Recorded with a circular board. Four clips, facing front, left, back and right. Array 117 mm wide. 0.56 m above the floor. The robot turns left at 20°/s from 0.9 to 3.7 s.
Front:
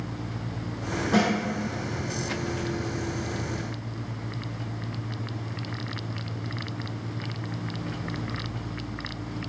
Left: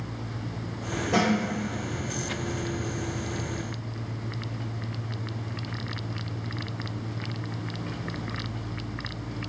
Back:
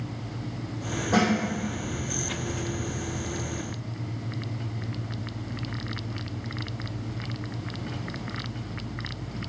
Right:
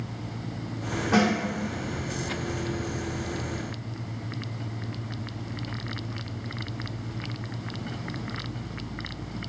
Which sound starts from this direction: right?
A snare drum, at 1.1 s.